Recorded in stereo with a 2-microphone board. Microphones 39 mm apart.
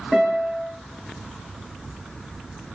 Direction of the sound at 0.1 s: 15° left (ahead or behind).